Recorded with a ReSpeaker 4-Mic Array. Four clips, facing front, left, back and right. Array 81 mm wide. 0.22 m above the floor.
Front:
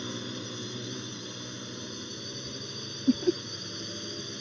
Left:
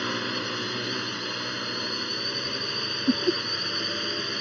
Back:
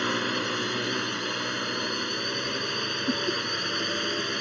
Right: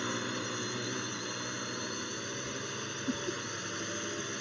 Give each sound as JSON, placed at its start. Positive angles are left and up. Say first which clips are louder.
{"t": 0.0, "sound": "a drone", "louder": "left 6 dB, back 10 dB", "azimuth_deg": 155}
{"t": 3.1, "sound": "laughter", "louder": "left 12 dB, front 5 dB", "azimuth_deg": 65}